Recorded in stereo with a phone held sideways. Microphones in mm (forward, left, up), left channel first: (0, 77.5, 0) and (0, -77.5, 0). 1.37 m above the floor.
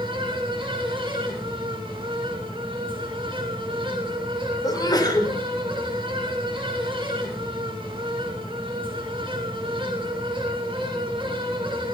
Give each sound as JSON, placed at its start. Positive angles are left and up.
{"t": 0.0, "sound": "a fan", "side_deg": -35, "distance_m": 9.0}
{"t": 4.6, "sound": "a sneeze", "side_deg": 25, "distance_m": 4.5}